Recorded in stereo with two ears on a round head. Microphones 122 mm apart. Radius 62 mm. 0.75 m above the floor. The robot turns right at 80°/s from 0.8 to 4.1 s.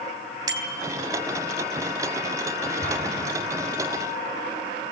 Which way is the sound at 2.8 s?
50° left (ahead or behind).